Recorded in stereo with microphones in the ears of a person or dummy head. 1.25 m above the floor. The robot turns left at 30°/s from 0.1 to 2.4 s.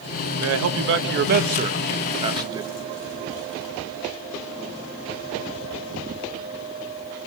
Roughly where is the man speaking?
Right.